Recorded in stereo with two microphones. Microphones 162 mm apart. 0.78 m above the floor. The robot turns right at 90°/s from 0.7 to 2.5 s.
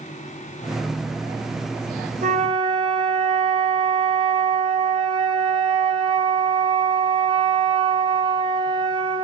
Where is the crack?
No crack in this recording.